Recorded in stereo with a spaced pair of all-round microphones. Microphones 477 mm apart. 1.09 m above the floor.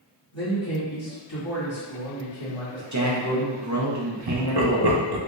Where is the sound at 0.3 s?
65° left (ahead or behind), 1.9 m.